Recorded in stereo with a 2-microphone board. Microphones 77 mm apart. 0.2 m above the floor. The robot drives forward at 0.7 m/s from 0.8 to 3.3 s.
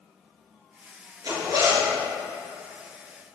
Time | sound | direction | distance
1.2 | a zipper | 60° right (ahead or behind) | 3.5 m